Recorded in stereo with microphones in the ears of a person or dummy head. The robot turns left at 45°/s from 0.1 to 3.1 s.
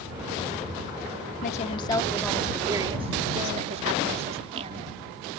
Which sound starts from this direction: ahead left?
A woman speaking, at 1.4 s.